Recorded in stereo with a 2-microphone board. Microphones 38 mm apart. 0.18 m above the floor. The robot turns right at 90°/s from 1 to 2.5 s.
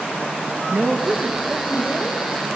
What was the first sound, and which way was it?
A woman speaking, 55° right.